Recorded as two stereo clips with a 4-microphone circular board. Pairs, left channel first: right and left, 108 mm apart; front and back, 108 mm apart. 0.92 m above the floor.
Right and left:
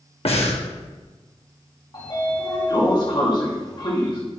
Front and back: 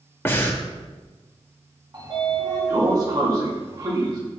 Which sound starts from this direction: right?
Breathing, at 0.2 s.